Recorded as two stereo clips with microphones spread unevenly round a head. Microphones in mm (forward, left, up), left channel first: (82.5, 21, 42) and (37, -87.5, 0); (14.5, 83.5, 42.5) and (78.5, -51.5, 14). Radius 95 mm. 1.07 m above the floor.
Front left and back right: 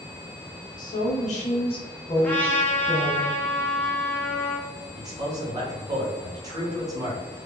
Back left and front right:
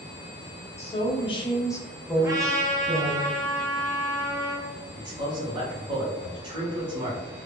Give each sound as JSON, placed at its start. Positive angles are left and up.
{"t": 0.8, "sound": "a woman speaking", "azimuth_deg": 70, "distance_m": 0.9}
{"t": 2.2, "sound": "a trumpet", "azimuth_deg": -30, "distance_m": 0.7}
{"t": 5.0, "sound": "a man speaking", "azimuth_deg": -100, "distance_m": 1.0}